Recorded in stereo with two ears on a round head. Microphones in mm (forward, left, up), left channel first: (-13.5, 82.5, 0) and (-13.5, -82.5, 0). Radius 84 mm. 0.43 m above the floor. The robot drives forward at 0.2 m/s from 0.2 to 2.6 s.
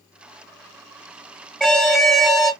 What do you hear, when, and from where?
1.6 s an alarm: centre (ahead or behind), 1.3 m